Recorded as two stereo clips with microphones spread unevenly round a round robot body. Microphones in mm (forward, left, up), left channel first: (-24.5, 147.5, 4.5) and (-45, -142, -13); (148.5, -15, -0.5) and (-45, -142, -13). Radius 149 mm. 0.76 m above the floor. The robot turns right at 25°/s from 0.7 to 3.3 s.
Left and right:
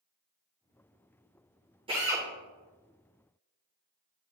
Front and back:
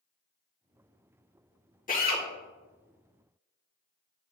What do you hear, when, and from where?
1.9 s a drill: 20° right, 2 m; by 2.2 s 15° right, 2 m